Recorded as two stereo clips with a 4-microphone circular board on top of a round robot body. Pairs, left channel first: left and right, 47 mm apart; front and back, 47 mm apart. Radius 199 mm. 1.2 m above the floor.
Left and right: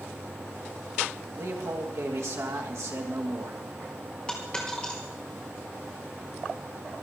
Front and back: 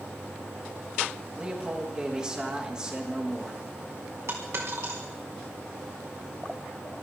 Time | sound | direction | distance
1.4 | a man speaking | 105° right | 2.5 m
4.3 | a dropped coin | 165° left | 3.5 m